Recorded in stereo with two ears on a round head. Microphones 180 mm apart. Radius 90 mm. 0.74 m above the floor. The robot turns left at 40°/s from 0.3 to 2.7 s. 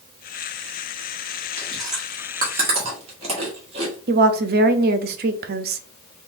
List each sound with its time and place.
1.6 s chewing: 10° left (ahead or behind), 1.6 m; by 4.0 s 30° right (ahead or behind), 1.6 m
4.1 s a woman speaking: 50° right (ahead or behind), 0.6 m